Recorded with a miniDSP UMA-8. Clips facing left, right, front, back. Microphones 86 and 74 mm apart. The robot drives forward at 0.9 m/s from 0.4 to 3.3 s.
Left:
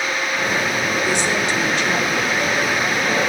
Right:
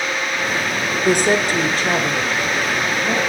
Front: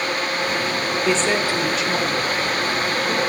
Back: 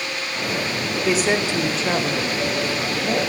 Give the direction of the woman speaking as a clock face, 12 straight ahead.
3 o'clock.